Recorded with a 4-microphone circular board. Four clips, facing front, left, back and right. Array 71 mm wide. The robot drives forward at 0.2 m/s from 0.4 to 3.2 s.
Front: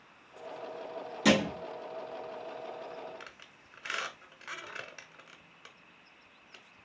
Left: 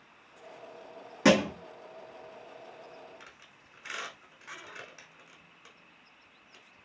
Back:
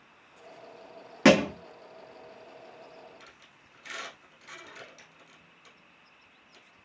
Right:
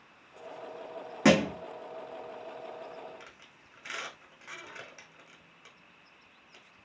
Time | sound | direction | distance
1.2 | a thud | 170° right | 0.6 m
3.2 | a squeak | 5° right | 1.0 m